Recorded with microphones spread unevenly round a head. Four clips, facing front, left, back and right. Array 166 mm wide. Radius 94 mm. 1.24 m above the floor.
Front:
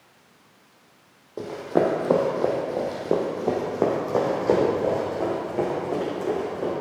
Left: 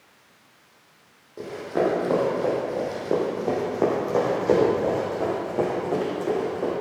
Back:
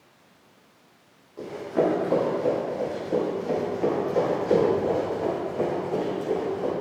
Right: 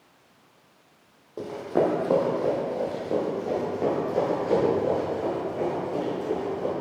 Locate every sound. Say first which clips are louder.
1.4 s running footsteps: even, front 2 dB; 25° right, 3 m; by 6.7 s 55° left, 6 m